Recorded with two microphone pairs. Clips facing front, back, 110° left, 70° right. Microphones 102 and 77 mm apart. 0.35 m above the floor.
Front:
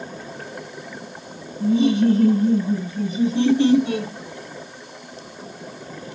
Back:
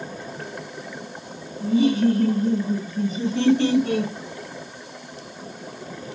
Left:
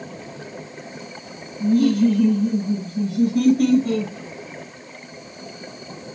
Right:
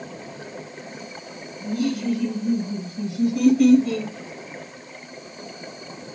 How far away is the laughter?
About 3.5 m.